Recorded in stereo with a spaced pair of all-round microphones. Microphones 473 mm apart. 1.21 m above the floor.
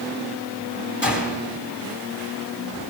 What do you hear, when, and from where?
1.0 s a gunshot: 20° left (ahead or behind), 3.5 m